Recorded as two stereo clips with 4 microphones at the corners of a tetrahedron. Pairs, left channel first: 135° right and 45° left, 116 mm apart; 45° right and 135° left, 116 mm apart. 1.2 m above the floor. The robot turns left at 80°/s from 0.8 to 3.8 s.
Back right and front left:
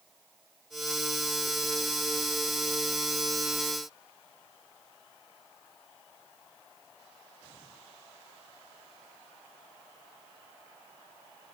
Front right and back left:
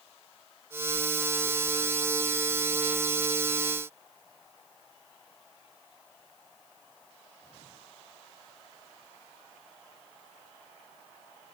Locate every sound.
Only background noise.